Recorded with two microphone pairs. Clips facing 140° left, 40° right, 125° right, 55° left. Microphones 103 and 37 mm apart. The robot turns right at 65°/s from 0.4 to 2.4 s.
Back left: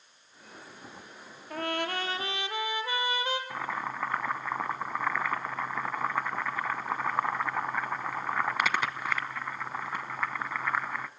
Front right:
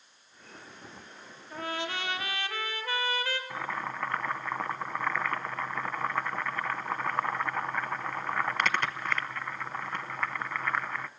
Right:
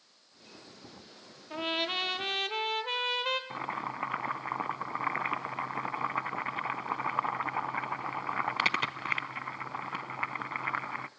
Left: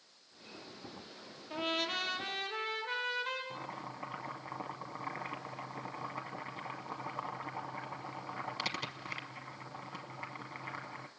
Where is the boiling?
135° right, 0.7 m.